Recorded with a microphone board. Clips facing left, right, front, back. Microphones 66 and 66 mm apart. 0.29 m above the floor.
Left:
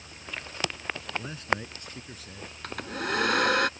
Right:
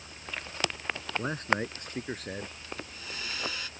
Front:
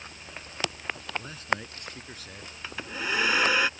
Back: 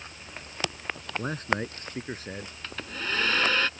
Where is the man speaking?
135° right; by 2.5 s 120° right.